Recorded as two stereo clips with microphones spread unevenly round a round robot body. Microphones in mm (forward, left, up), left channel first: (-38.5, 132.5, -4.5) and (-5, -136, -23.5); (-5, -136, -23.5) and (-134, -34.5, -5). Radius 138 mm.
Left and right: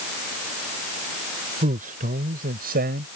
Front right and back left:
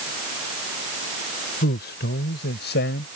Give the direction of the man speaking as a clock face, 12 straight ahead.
1 o'clock.